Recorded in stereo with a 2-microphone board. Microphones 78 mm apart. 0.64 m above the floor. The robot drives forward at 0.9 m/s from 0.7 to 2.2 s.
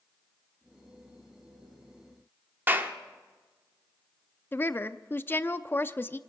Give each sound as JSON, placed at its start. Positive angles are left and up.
{"t": 2.7, "sound": "a clap", "side_deg": -25, "distance_m": 1.4}
{"t": 4.5, "sound": "a woman speaking", "side_deg": 30, "distance_m": 0.6}